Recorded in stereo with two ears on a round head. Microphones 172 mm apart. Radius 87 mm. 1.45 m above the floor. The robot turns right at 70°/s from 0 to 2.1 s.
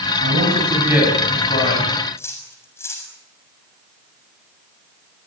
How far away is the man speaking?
About 8 m.